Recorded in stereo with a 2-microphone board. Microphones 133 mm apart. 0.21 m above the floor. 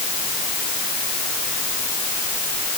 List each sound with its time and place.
Only background noise.